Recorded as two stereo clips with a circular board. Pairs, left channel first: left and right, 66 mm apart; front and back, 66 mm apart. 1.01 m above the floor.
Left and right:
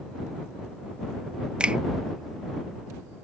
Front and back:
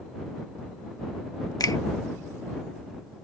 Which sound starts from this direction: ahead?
A finger snap, at 1.6 s.